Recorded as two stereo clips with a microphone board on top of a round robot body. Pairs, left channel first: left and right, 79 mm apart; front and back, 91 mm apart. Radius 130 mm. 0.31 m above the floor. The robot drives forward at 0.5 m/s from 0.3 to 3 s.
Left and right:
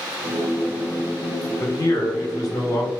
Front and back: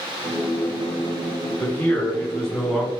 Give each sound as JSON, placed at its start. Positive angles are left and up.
{"t": 1.6, "sound": "a man speaking", "azimuth_deg": 60, "distance_m": 1.6}